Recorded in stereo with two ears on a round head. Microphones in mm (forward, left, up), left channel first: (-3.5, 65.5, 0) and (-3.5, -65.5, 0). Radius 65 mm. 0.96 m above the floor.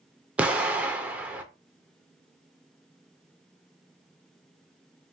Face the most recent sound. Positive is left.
turn(degrees=-10)  # may be behind; listen again after turning